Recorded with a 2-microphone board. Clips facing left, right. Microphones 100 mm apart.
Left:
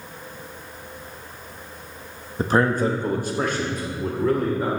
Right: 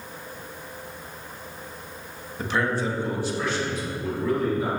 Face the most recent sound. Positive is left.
turn(degrees=50)  # may be behind; listen again after turning